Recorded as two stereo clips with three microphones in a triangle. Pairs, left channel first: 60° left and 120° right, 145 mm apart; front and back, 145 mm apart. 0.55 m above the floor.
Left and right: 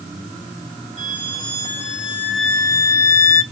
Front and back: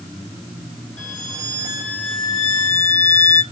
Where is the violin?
75° left, 2.0 m.